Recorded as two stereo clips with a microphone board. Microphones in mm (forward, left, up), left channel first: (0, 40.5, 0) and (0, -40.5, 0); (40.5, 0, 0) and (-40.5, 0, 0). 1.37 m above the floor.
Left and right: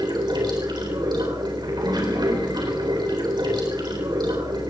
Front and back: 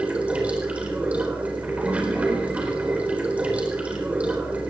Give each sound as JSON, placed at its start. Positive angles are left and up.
{"t": 0.0, "sound": "running water", "azimuth_deg": -105, "distance_m": 4.0}